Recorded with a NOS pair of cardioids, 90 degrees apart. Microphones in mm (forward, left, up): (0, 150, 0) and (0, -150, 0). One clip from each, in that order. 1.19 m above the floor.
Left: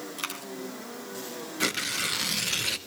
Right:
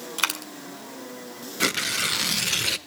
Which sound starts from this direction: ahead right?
A dropped coin, at 0.2 s.